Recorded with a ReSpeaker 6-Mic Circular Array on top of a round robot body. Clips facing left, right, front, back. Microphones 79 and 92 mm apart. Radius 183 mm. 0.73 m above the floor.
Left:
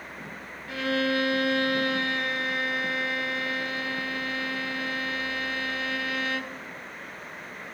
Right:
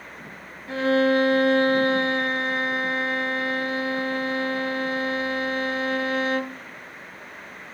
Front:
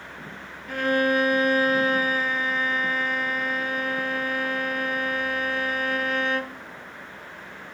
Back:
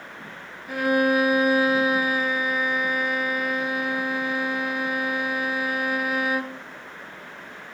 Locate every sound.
0.7 s a violin: 105° right, 0.7 m